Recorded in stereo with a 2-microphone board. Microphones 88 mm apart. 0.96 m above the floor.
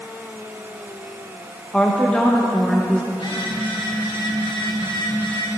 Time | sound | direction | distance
1.7 | a woman speaking | 10° left (ahead or behind) | 1.0 m
3.1 | a phone buzzing | 85° left | 5 m